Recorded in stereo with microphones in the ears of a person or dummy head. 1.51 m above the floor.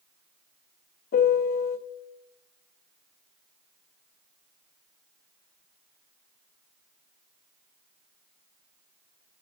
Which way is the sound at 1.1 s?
50° left (ahead or behind).